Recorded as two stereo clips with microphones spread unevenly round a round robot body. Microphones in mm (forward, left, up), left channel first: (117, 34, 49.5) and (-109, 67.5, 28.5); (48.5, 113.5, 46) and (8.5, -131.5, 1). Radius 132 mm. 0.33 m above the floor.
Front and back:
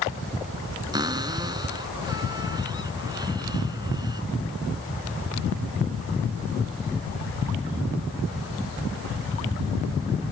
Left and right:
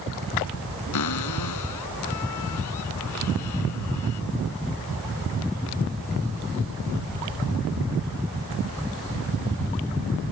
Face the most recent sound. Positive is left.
turn(degrees=100)